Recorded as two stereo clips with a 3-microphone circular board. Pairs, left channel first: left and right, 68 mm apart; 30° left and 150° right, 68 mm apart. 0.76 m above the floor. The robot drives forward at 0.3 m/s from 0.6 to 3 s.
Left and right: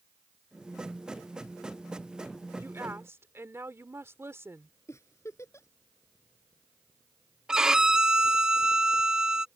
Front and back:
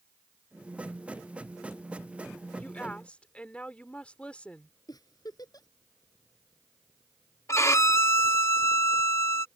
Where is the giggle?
45° left.